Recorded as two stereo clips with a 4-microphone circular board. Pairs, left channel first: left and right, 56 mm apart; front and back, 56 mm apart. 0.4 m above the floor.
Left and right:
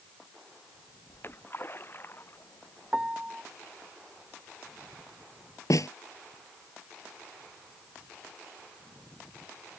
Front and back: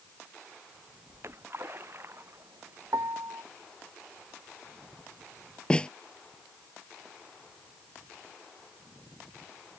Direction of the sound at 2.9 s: 165° right.